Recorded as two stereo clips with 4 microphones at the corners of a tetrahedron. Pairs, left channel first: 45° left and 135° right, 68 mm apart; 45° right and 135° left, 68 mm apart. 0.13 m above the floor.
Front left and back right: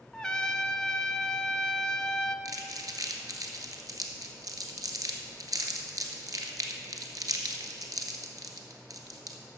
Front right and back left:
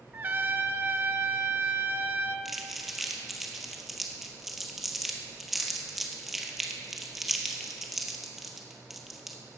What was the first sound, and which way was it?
A trumpet, 115° left.